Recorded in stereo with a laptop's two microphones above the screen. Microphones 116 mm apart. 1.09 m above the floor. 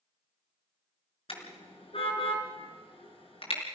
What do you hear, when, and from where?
1.3 s a car horn: 55° left (ahead or behind), 6 m